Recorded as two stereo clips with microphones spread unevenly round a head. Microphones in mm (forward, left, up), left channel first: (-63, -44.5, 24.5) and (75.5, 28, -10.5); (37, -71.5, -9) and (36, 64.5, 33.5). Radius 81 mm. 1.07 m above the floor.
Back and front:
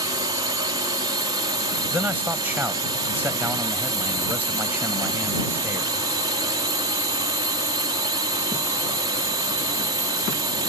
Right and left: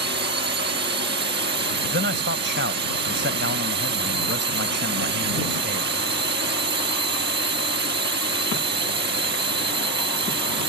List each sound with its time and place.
0.0 s a drone: 90° left
1.9 s a man speaking: 110° left